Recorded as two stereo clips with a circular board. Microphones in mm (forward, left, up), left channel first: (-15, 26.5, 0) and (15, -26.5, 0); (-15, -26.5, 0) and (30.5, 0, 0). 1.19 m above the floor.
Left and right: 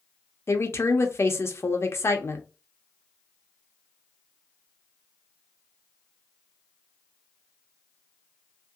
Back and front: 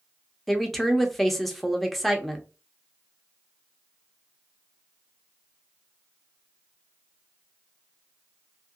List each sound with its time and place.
0.5 s a woman speaking: 125° left, 0.6 m